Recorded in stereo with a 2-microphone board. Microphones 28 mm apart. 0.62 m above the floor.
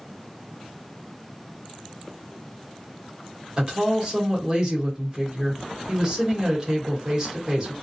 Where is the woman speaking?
30° right (ahead or behind), 1.3 m.